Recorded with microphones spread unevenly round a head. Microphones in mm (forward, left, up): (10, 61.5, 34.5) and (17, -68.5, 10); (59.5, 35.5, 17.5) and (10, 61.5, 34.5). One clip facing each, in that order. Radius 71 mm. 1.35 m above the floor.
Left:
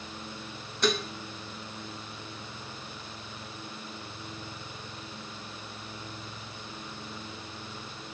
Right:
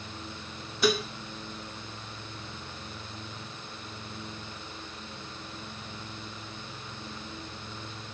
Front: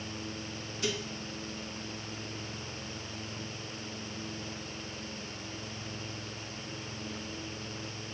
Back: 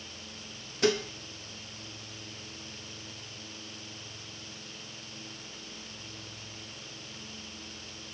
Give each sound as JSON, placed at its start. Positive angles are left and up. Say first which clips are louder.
{"t": 0.8, "sound": "dishes clattering", "louder": "right 2 dB, back 9 dB", "azimuth_deg": 180, "distance_m": 0.8}